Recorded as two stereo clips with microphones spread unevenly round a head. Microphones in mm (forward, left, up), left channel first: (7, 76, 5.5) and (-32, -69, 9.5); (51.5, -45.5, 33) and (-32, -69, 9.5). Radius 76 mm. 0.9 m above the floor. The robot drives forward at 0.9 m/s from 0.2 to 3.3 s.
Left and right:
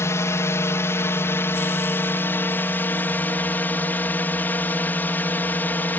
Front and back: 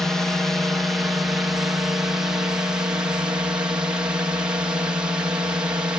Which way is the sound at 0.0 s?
130° left.